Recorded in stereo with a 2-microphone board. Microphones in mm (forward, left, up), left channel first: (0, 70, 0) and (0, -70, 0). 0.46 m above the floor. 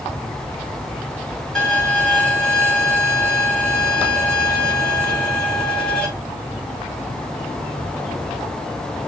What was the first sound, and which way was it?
A violin, 5° left (ahead or behind).